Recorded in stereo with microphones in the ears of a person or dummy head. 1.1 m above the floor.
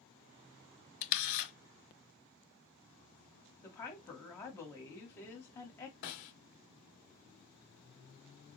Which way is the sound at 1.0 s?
60° left (ahead or behind).